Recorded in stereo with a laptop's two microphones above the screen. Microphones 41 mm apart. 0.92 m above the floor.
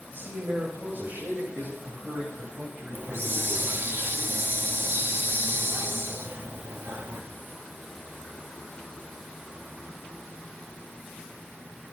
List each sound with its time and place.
0.1 s a man speaking: 55° right (ahead or behind), 5 m; by 3.9 s 30° right (ahead or behind), 8 m
2.9 s a hiss: 60° right (ahead or behind), 1.7 m